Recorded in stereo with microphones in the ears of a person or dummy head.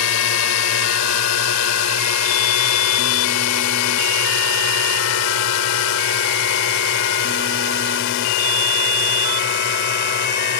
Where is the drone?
80° left; by 10.6 s 50° left (ahead or behind).